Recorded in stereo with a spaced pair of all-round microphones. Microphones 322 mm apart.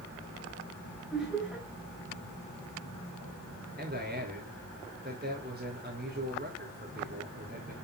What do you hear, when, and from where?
1.1 s laughter: centre (ahead or behind), 6.5 m
3.8 s a man speaking: 30° right (ahead or behind), 5 m